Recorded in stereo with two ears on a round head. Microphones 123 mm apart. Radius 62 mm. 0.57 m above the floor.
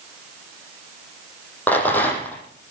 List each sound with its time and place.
1.7 s a rattle: 15° left (ahead or behind), 5.5 m